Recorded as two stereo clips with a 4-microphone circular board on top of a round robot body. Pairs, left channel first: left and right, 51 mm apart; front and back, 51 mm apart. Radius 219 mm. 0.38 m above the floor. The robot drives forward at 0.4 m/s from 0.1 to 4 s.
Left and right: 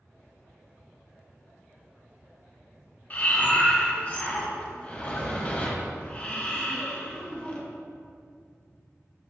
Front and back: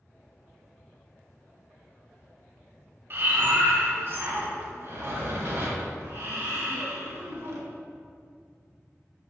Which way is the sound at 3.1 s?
145° left.